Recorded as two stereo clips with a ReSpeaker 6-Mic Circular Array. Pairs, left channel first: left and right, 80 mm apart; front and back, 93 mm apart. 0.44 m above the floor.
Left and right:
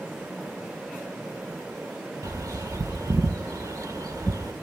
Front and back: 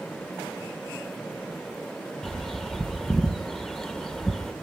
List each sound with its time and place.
2.2 s a bird: 85° right, 0.9 m